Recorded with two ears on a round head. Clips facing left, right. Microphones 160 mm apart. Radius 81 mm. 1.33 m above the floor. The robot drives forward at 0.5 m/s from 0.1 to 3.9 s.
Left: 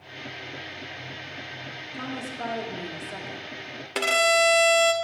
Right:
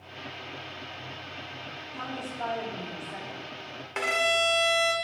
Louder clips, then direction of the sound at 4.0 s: Left 5 dB; 40° left (ahead or behind).